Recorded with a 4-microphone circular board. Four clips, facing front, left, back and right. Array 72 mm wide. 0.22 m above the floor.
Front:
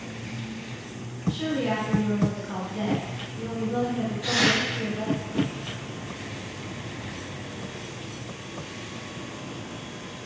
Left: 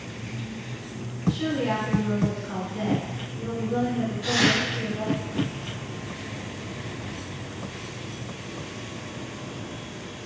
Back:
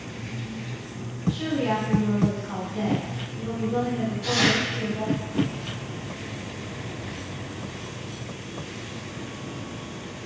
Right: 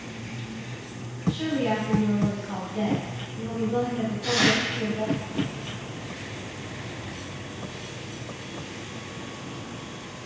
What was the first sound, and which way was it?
A woman speaking, 90° right.